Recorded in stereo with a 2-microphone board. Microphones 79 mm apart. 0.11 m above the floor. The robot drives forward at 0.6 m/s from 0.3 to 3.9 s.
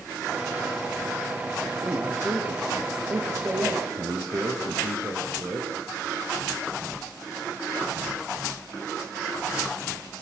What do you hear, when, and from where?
1.8 s a man speaking: 40° right (ahead or behind), 8 m; by 5.8 s 45° right (ahead or behind), 7 m